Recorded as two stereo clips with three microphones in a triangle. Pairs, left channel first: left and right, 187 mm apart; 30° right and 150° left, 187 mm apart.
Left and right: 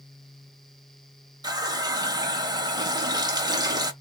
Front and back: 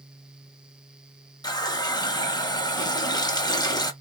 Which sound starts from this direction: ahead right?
A running tap, at 1.4 s.